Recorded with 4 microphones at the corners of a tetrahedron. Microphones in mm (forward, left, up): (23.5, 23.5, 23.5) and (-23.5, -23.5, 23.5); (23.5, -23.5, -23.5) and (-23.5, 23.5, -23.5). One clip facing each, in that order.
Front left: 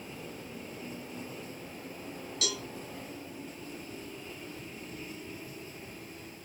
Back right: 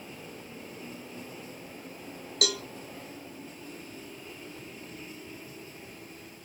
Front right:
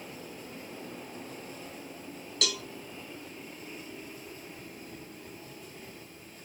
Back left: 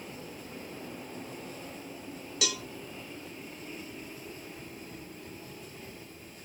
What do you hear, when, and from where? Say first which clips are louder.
2.4 s a cowbell: back right 6 dB, front right 1 dB; 145° right, 0.8 m